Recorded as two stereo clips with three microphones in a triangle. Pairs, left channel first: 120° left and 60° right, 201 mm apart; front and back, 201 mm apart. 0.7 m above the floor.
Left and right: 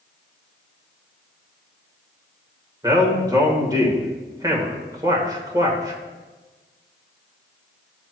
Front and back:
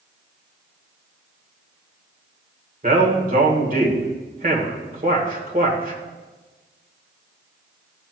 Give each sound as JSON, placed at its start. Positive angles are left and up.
{"t": 2.8, "sound": "a man speaking", "azimuth_deg": -130, "distance_m": 1.8}